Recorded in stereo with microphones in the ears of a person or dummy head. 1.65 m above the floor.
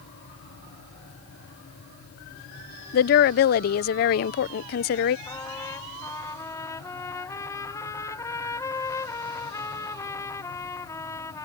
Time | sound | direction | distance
2.9 | a woman speaking | 50° left (ahead or behind) | ?
5.3 | a trumpet | 15° left (ahead or behind) | ?